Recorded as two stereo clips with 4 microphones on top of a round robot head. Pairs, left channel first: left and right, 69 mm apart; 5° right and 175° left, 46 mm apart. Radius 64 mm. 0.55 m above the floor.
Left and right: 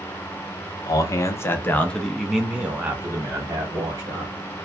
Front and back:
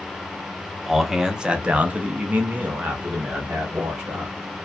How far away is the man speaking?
About 0.9 m.